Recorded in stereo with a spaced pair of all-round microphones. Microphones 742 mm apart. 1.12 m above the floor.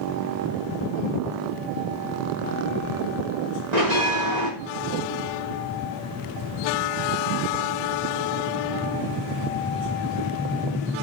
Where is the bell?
70° right (ahead or behind), 4 m.